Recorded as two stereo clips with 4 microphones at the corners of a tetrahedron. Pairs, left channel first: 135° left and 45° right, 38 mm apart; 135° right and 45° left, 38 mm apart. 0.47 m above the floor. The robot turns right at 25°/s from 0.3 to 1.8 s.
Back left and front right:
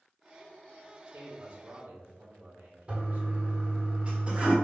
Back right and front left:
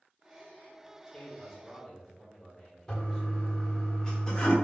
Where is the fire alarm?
No fire alarm in this recording.